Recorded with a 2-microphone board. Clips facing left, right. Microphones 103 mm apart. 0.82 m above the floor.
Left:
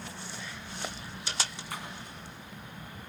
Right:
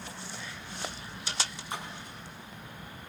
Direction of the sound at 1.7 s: 25° right (ahead or behind).